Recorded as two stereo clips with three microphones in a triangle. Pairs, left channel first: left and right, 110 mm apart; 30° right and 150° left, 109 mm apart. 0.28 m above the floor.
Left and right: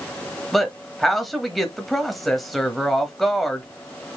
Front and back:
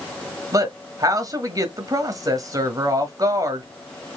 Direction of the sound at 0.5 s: Straight behind.